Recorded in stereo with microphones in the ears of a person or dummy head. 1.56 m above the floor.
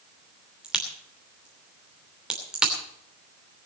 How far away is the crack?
About 2.5 m.